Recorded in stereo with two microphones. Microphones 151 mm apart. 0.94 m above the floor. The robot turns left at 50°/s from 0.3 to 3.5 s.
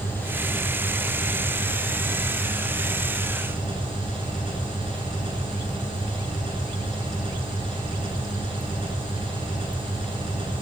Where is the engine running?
15° left, 8.5 m; by 10.6 s 145° right, 8.5 m.